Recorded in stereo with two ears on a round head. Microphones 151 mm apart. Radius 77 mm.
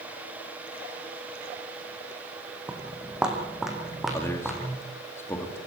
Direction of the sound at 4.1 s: 15° left (ahead or behind).